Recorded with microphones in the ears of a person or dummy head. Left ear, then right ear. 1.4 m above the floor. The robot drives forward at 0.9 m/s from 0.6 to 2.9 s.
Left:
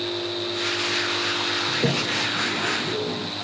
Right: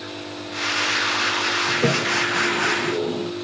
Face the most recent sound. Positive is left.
turn(degrees=-50)  # may be behind; listen again after turning